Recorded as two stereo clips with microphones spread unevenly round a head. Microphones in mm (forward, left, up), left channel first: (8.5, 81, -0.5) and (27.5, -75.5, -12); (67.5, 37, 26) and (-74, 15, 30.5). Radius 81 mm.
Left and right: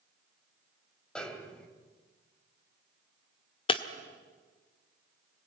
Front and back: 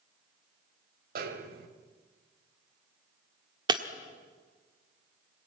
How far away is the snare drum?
About 2 m.